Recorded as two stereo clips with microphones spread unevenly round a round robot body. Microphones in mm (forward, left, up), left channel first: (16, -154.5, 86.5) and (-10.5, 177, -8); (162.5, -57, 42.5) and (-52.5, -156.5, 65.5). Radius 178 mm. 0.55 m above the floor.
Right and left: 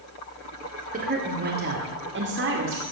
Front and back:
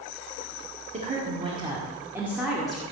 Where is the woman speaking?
140° left, 2 m; by 2.8 s 110° left, 1.9 m.